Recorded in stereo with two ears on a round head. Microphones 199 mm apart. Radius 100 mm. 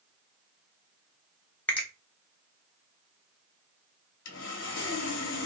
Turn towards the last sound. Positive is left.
turn(degrees=60)  # may be behind; listen again after turning